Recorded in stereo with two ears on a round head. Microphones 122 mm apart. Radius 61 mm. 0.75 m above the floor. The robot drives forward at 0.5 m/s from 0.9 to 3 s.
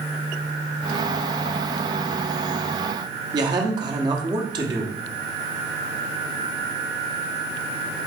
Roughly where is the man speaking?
Right.